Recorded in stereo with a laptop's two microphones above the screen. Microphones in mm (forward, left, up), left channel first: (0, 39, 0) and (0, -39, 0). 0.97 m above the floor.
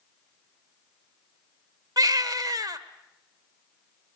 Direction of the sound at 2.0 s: 50° right (ahead or behind).